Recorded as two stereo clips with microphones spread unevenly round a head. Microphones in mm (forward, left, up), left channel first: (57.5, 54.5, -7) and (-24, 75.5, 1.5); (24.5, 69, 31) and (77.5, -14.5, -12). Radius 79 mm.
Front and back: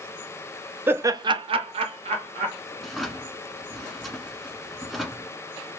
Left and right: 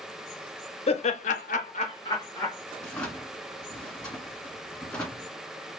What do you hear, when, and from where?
0.9 s laughter: 95° left, 0.6 m; by 2.6 s 160° right, 1.1 m
2.8 s a drawer: 80° left, 1.3 m